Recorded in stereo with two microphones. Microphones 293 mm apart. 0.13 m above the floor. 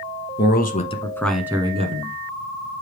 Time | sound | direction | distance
0.4 | a man speaking | 35° left (ahead or behind) | 1.4 m